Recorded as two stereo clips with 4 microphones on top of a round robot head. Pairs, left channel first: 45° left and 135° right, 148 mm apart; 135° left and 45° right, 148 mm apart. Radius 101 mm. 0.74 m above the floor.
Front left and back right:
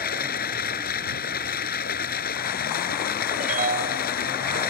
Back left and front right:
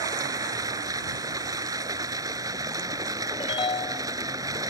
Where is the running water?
20° left.